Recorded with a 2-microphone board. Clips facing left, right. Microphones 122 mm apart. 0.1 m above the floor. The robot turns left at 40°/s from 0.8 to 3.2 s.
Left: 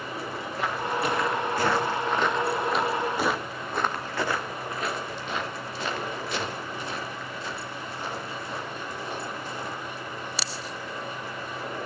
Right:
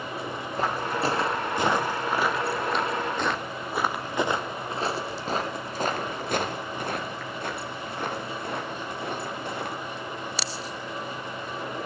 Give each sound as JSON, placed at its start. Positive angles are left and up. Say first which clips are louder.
{"t": 0.6, "sound": "footsteps", "louder": "right 1 dB", "side_deg": -35, "distance_m": 3.5}